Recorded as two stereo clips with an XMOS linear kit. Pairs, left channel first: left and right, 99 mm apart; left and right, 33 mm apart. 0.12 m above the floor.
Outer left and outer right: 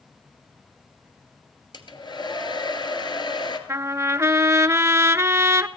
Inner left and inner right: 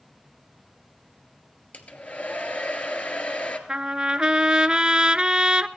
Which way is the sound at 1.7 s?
50° left (ahead or behind).